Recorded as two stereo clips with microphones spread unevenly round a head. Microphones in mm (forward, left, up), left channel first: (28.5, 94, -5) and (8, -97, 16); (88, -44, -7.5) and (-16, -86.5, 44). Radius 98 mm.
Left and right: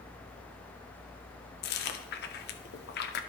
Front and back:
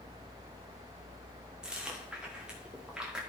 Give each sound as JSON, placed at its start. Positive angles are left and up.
{"t": 1.6, "sound": "chewing", "azimuth_deg": 105, "distance_m": 0.8}